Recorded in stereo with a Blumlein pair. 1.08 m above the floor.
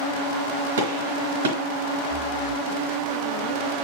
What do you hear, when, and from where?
0.8 s a gunshot: 60° right, 3.5 m
2.1 s breathing: 5° right, 3 m